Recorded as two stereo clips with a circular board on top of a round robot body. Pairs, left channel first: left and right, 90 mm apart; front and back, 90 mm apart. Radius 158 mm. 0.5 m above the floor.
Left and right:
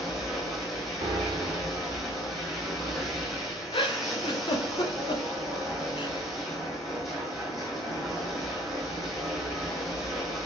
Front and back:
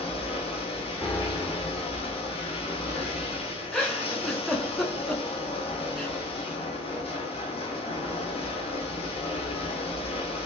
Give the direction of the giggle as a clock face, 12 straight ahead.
9 o'clock.